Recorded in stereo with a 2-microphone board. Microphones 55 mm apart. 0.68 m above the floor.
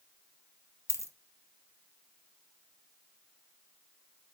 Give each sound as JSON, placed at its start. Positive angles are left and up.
{"t": 0.9, "sound": "a dropped coin", "side_deg": 60, "distance_m": 1.0}